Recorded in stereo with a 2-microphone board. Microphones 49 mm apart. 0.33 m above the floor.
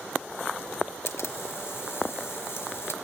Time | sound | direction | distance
1.1 | a camera shutter | 65° left (ahead or behind) | 0.9 m